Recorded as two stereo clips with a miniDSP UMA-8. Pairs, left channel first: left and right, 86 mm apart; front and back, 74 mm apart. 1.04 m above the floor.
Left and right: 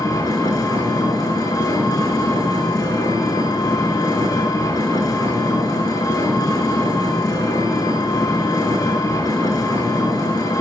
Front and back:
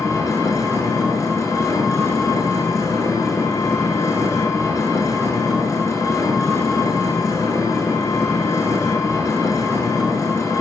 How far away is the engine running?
About 8.5 m.